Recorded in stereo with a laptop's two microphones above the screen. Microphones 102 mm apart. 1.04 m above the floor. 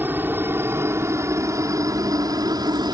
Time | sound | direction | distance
0.0 | a helicopter | 20° right (ahead or behind) | ?